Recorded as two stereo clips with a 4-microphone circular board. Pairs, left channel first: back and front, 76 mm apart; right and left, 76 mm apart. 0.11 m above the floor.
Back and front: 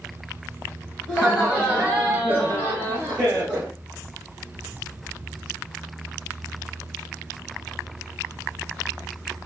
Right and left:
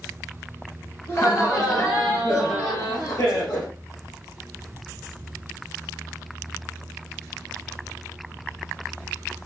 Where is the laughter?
75° right, 1.9 m; by 3.7 s 55° right, 3 m.